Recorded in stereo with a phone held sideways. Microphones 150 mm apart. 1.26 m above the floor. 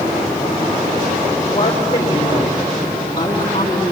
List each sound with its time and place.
1.5 s a woman speaking: 30° left (ahead or behind), 4.5 m